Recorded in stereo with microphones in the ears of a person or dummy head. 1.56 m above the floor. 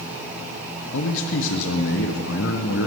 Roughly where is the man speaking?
Left.